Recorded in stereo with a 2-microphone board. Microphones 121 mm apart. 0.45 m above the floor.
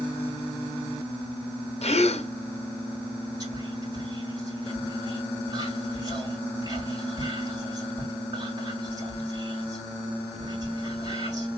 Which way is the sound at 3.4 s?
35° right (ahead or behind).